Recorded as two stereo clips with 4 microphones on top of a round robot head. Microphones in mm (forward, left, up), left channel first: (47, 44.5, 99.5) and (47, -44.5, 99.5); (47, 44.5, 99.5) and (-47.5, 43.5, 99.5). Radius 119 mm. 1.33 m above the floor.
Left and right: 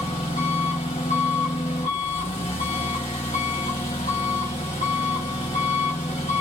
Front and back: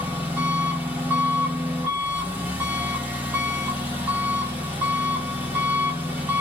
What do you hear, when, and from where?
0.0 s an engine running: 115° left, 0.9 m